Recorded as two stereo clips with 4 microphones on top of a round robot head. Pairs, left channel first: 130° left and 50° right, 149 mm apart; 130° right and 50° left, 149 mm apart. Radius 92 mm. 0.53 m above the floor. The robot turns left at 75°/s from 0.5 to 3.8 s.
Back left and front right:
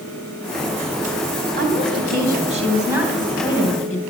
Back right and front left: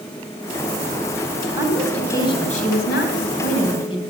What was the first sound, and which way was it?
A woman speaking, 20° right.